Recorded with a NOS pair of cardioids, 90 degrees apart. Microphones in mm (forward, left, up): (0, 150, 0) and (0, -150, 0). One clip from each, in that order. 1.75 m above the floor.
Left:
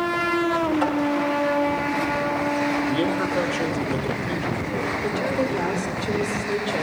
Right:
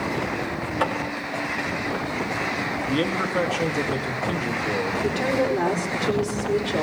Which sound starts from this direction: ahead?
A man speaking, at 2.9 s.